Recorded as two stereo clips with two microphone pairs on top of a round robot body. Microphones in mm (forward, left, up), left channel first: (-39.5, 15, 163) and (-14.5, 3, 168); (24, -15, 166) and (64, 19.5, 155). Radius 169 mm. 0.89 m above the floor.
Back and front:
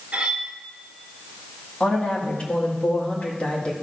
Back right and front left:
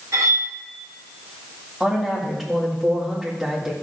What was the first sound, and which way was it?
Cutlery clinking, 25° left.